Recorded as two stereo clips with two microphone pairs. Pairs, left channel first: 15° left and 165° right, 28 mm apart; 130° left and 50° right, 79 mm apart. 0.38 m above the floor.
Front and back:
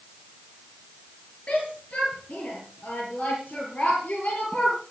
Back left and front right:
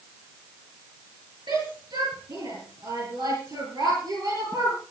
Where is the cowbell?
I don't hear a cowbell.